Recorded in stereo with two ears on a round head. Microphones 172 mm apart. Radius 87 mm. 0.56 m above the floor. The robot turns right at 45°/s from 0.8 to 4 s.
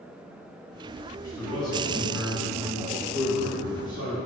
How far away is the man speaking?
About 1.4 m.